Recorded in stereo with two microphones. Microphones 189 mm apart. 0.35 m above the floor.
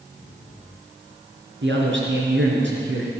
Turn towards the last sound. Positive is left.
turn(degrees=-75)  # may be behind; listen again after turning